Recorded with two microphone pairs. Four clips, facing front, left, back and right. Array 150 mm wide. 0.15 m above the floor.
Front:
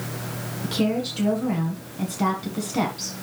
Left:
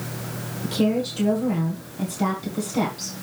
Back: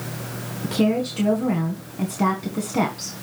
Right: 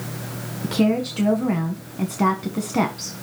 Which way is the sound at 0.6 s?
105° right.